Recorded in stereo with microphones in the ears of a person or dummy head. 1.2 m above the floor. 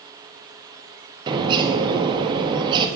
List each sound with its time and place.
1.3 s a bird: 25° right (ahead or behind), 1.4 m